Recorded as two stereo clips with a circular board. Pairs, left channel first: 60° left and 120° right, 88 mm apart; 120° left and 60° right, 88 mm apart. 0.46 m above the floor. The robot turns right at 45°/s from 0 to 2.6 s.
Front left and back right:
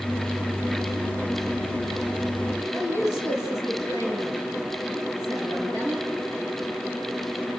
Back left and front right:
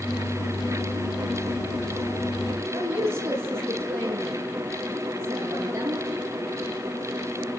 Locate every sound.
2.7 s a woman speaking: straight ahead, 7.5 m